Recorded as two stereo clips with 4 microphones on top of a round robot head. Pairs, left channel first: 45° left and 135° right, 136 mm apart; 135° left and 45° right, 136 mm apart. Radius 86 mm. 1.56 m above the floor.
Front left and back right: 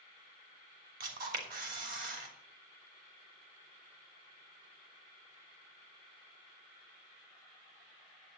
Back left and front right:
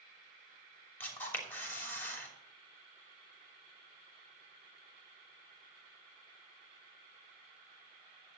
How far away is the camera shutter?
About 3 m.